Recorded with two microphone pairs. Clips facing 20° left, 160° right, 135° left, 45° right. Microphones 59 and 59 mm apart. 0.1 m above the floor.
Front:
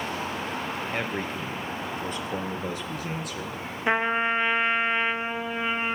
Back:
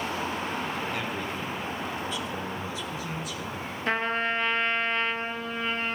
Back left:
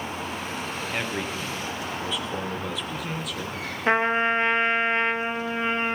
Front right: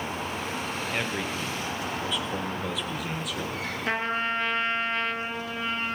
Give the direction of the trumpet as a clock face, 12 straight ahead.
9 o'clock.